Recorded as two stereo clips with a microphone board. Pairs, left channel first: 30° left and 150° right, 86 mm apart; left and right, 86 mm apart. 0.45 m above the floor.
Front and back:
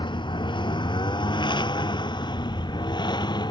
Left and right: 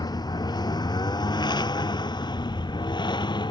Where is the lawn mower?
50° left; by 3.5 s 60° left.